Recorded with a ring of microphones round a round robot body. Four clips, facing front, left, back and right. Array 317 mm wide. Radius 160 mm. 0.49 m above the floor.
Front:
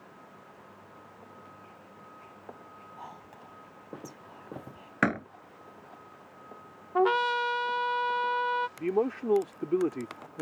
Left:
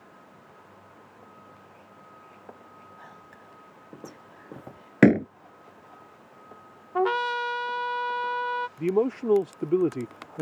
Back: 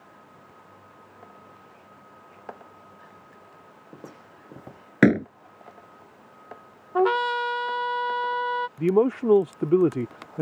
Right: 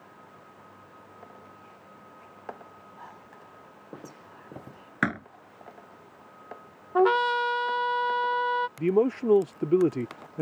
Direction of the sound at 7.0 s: 135° right.